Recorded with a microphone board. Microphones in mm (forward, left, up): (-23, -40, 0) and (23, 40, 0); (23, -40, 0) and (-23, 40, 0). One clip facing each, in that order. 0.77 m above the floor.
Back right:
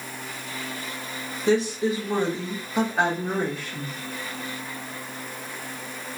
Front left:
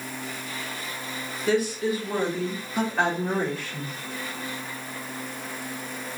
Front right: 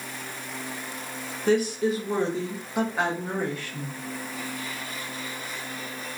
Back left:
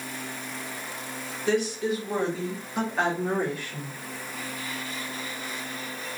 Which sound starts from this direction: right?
A woman speaking, at 1.5 s.